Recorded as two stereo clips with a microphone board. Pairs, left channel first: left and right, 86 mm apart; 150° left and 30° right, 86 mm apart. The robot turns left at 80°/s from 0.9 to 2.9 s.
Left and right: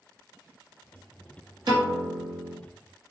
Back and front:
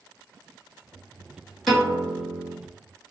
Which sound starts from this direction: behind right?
A piano, at 1.7 s.